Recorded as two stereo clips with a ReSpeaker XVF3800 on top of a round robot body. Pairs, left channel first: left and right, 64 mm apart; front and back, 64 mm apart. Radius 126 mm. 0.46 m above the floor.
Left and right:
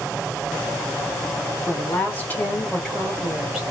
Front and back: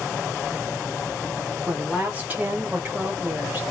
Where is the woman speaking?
120° left, 1.6 m; by 3.6 s 160° right, 1.4 m.